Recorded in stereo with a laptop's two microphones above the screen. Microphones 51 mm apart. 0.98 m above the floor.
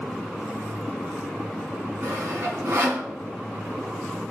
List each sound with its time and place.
2.0 s sawing: 65° right (ahead or behind), 3 m